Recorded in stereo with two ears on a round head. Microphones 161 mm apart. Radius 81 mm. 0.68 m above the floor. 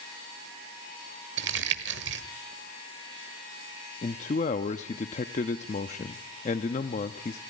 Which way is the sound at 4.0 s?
40° left (ahead or behind).